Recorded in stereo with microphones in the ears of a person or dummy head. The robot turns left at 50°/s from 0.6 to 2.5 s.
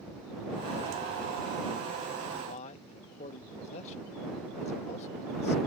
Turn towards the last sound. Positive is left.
turn(degrees=40)  # may be behind; listen again after turning